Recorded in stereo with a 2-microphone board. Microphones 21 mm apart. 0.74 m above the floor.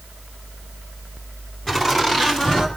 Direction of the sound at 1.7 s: 20° left (ahead or behind).